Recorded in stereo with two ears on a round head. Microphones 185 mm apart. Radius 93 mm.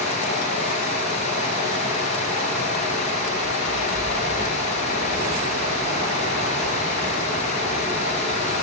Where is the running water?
35° left (ahead or behind), 8 m.